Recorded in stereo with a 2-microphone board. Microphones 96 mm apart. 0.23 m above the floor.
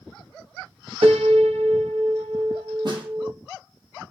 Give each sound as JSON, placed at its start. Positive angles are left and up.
{"t": 1.0, "sound": "a piano", "side_deg": -75, "distance_m": 3.0}
{"t": 2.9, "sound": "a snare drum", "side_deg": -50, "distance_m": 9.0}